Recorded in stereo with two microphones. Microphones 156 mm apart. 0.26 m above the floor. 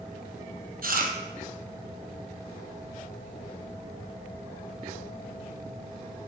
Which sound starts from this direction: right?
Chewing, at 0.8 s.